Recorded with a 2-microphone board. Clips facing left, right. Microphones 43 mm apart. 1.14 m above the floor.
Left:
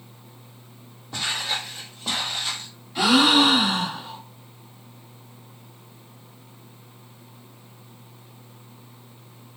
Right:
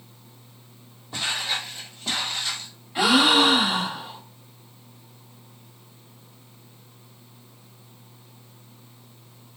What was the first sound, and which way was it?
Footsteps, 10° right (ahead or behind).